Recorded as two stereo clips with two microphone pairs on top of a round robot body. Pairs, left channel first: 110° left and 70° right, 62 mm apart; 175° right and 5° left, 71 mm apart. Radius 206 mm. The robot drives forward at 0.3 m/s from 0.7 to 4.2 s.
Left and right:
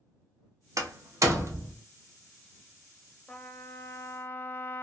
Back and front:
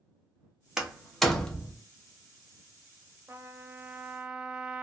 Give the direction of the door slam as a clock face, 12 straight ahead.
3 o'clock.